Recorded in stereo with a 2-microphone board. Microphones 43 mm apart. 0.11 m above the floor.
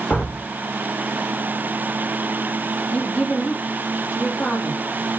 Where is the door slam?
40° left (ahead or behind), 6.5 m.